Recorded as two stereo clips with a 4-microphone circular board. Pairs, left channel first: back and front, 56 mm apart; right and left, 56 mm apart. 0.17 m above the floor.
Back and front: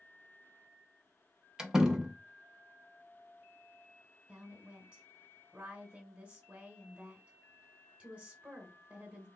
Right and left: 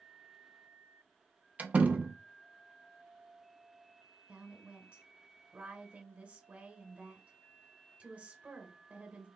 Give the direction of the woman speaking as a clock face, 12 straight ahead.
10 o'clock.